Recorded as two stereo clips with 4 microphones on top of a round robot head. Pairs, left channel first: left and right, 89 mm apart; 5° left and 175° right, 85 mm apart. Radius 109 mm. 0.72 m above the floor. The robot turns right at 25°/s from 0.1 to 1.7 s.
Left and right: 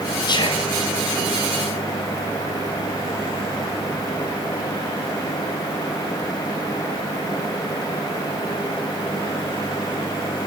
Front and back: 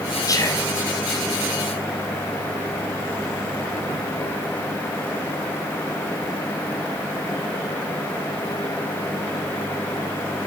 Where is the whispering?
55° left, 5 m; by 0.7 s 65° left, 5 m.